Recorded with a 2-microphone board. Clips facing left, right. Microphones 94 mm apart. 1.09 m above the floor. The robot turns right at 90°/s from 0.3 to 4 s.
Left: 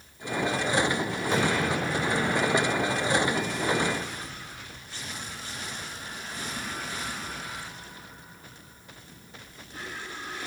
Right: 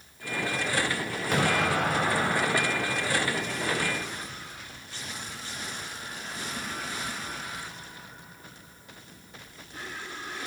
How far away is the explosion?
About 5.5 m.